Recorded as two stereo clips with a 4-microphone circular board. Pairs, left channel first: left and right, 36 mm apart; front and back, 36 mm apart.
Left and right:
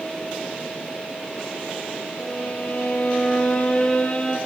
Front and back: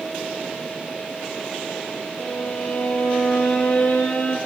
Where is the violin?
25° left, 6 m.